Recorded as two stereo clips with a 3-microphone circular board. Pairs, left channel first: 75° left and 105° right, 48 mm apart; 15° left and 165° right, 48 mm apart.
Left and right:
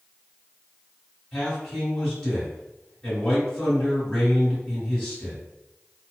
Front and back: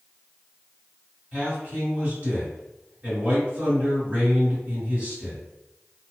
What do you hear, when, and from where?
1.3 s a man speaking: 155° left, 1.7 m